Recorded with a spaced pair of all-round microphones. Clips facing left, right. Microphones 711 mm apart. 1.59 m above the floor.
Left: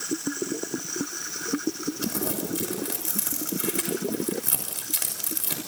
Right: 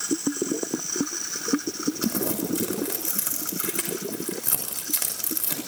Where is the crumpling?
Centre (ahead or behind), 6 m.